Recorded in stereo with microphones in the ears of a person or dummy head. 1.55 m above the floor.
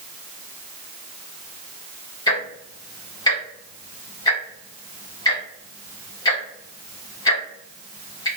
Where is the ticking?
25° left (ahead or behind), 0.7 m.